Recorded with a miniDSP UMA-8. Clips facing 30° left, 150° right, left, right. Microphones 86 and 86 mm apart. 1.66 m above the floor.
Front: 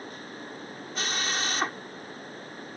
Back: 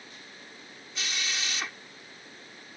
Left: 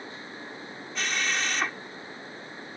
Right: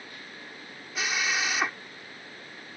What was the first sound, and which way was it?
A drill, 10° right.